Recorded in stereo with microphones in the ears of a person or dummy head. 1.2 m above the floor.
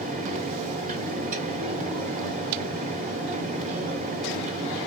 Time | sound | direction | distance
0.0 | a fan | 40° right (ahead or behind) | 1.4 m